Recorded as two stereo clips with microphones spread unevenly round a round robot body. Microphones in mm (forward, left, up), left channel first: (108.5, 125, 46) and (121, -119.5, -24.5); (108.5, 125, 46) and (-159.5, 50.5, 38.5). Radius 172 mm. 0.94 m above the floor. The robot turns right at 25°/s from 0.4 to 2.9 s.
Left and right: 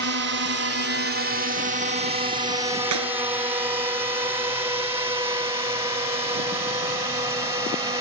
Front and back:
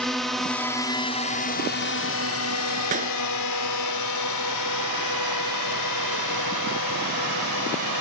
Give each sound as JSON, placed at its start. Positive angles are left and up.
{"t": 0.0, "sound": "a drone", "azimuth_deg": -75}
{"t": 2.9, "sound": "a clap", "azimuth_deg": -95}